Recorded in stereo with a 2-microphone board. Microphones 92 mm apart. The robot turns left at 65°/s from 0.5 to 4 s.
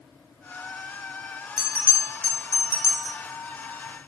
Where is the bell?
5° right, 0.6 m; by 3.2 s 110° right, 0.6 m.